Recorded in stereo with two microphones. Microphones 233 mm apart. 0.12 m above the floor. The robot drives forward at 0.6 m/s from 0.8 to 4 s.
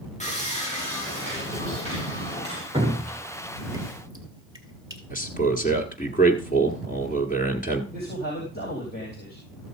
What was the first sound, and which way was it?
Sawing, 30° left (ahead or behind).